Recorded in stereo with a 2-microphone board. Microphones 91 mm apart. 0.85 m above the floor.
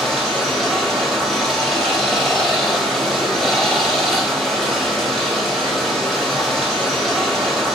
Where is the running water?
Centre (ahead or behind), 1.4 m.